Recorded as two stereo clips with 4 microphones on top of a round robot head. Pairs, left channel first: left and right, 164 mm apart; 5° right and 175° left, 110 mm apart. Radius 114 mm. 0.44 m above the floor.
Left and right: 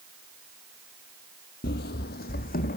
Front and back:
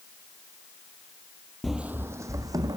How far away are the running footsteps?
About 0.6 m.